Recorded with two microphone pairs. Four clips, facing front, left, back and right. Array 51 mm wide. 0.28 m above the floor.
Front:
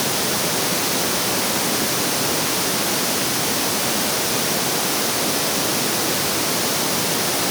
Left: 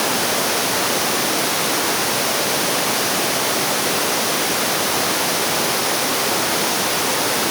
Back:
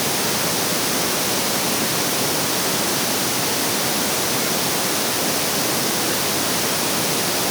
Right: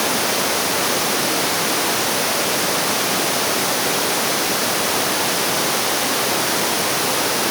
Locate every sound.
Only background noise.